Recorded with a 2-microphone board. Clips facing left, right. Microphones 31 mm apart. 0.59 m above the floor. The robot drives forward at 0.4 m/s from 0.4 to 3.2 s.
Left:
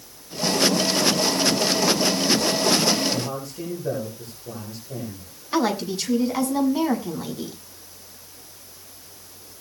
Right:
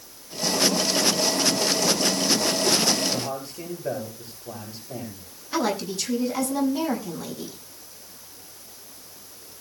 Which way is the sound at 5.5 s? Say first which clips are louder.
Left 3 dB; 20° left (ahead or behind).